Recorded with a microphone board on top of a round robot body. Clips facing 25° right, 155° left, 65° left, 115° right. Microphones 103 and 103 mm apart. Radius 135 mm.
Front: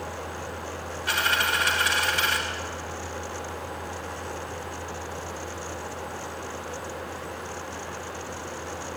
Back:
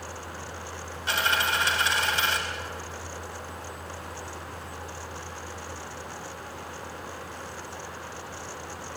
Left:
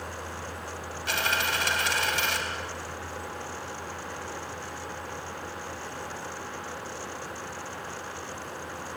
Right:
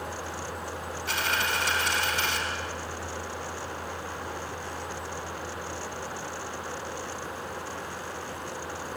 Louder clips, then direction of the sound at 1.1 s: Even, left 1 dB; 90° left.